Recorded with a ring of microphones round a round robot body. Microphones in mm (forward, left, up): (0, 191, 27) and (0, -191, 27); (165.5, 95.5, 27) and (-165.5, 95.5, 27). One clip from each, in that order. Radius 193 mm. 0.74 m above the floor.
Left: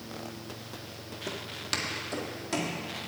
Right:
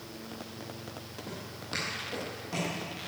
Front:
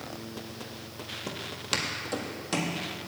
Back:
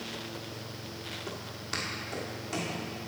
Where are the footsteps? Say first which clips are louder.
Left 7 dB, front 9 dB; 35° left, 1.3 m; by 2.8 s 25° left, 2 m.